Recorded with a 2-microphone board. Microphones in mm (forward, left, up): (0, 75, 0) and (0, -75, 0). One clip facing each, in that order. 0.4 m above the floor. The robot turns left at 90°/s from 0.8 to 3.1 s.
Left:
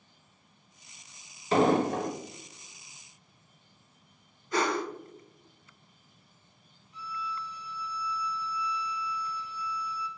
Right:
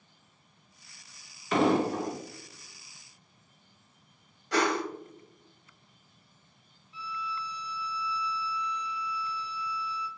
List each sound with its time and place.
1.5 s an explosion: 145° left, 0.6 m; by 2.1 s 90° left, 0.6 m
4.5 s a whoosh: 80° right, 0.6 m
6.9 s a violin: 45° left (ahead or behind), 0.6 m